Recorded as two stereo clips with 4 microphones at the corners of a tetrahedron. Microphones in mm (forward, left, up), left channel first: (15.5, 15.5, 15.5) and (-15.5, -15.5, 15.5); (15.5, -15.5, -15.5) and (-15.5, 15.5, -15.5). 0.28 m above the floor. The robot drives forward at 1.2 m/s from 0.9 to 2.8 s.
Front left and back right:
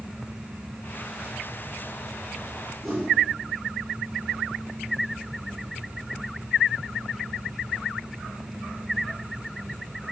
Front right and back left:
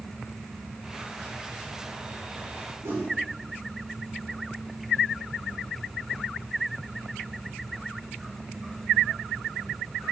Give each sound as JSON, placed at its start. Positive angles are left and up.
{"t": 2.8, "sound": "a whoosh", "azimuth_deg": 135, "distance_m": 3.0}